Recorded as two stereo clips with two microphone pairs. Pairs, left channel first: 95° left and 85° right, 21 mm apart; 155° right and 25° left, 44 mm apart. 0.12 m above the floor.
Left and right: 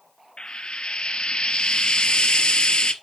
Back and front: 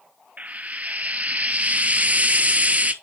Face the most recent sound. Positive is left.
turn(degrees=75)